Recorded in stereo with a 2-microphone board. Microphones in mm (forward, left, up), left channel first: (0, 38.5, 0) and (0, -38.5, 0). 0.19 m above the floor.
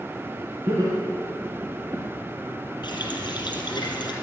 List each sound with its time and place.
0.7 s laughter: 50° right (ahead or behind), 2.5 m
2.8 s a running tap: 75° left (ahead or behind), 3 m